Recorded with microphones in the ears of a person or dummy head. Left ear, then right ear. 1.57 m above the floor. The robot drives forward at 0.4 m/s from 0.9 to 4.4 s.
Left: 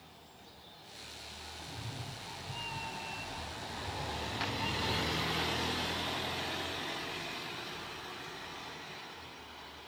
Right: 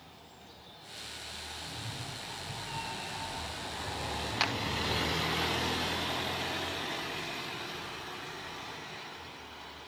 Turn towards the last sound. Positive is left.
turn(degrees=-30)  # may be behind; listen again after turning